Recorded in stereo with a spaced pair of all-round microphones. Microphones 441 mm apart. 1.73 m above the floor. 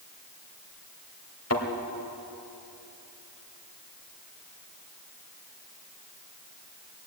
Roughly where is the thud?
Left.